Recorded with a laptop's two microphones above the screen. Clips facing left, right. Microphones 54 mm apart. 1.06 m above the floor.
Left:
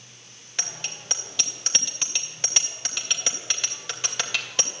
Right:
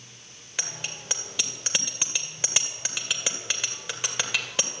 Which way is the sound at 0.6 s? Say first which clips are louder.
Even; 10° right (ahead or behind).